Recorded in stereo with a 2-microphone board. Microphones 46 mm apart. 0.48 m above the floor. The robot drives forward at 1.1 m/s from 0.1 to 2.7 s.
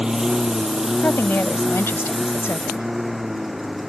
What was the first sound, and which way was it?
A lawn mower, 20° right (ahead or behind).